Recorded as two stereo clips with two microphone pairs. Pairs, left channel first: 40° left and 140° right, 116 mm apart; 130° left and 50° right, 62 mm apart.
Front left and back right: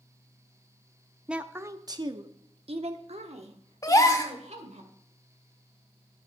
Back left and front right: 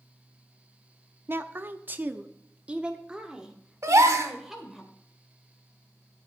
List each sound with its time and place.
1.3 s a woman speaking: 60° right, 0.7 m; by 4.8 s 135° right, 2 m
3.8 s a gasp: 20° right, 1.0 m